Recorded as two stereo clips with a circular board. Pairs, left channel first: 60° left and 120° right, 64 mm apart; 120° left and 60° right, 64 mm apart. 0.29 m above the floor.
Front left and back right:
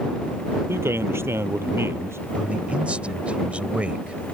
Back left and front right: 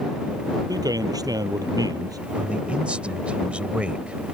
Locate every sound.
0.7 s a man speaking: 70° right
2.4 s a man speaking: 95° right